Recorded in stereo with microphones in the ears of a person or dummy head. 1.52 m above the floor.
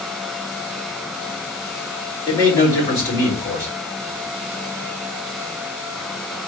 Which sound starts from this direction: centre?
A man speaking, at 2.3 s.